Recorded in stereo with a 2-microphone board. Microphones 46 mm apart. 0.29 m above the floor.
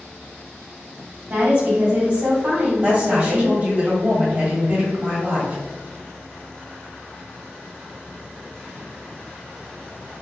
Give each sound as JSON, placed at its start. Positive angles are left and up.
{"t": 1.3, "sound": "a woman speaking", "side_deg": -45, "distance_m": 1.7}
{"t": 2.8, "sound": "a woman speaking", "side_deg": -30, "distance_m": 1.7}